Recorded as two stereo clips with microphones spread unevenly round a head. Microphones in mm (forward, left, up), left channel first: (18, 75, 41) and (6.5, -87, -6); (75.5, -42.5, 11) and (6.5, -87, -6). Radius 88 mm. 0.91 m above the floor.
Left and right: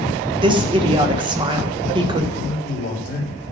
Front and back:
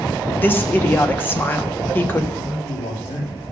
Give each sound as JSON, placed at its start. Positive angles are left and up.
{"t": 0.4, "sound": "a woman speaking", "azimuth_deg": -35, "distance_m": 1.1}
{"t": 2.3, "sound": "a man speaking", "azimuth_deg": 55, "distance_m": 3.0}